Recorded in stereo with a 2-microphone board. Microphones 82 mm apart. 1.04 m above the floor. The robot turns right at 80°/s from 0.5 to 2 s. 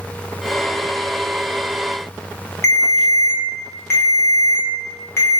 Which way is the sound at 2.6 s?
35° left (ahead or behind).